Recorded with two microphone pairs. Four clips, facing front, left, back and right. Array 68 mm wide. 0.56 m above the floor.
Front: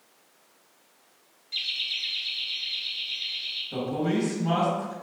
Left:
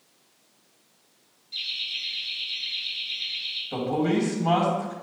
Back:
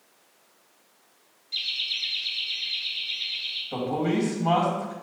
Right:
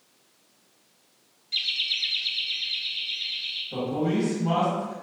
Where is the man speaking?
145° left, 3.5 m.